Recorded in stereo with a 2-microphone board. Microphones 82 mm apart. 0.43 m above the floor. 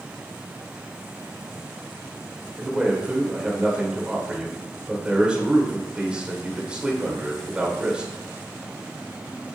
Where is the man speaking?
15° right (ahead or behind), 1.7 m.